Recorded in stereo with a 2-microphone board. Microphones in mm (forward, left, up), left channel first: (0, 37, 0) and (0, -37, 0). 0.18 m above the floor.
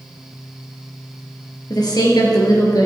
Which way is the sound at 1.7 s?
65° left (ahead or behind).